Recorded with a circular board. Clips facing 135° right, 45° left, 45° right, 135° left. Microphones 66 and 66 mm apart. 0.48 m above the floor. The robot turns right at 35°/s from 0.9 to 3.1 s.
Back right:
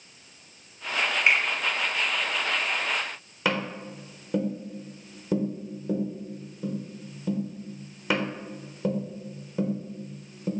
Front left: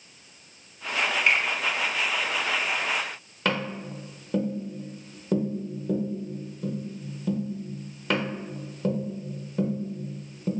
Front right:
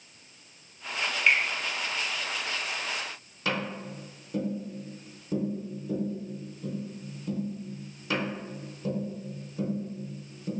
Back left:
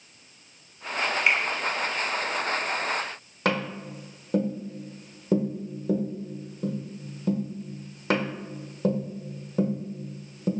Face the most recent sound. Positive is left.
turn(degrees=145)